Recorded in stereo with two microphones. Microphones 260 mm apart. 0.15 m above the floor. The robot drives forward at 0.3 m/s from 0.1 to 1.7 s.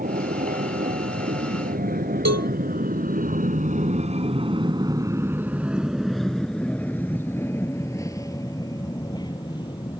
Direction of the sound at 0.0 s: 35° right (ahead or behind).